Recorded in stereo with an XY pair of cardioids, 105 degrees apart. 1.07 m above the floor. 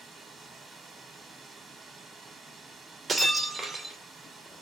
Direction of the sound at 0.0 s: 40° right.